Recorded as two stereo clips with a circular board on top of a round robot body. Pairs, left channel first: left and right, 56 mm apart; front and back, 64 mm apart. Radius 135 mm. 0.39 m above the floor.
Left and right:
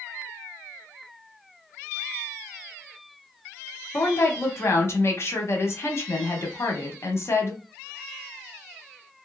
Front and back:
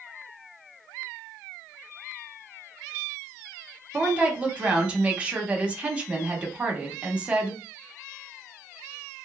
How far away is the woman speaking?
About 1.1 m.